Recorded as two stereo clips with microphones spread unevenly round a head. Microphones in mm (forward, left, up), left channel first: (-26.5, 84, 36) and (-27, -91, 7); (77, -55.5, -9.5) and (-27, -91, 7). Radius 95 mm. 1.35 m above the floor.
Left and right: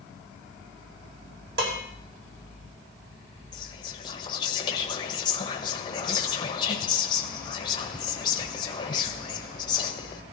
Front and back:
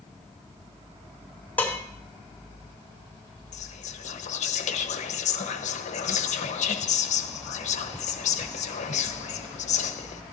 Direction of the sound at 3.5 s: 25° left.